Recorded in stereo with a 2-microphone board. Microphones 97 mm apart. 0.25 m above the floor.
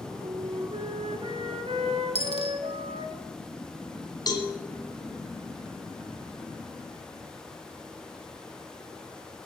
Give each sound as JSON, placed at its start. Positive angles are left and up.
{"t": 0.2, "sound": "a flute", "side_deg": -80, "distance_m": 1.3}
{"t": 2.1, "sound": "a dropped coin", "side_deg": 90, "distance_m": 1.2}
{"t": 4.3, "sound": "a cowbell", "side_deg": 40, "distance_m": 1.6}